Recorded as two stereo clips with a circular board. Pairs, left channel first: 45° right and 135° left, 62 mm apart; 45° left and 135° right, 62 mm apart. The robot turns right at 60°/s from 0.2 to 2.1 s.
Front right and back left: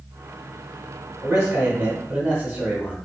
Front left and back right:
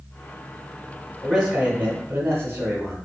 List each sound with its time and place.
1.2 s a man speaking: 135° left, 1.4 m; by 3.0 s 170° right, 1.4 m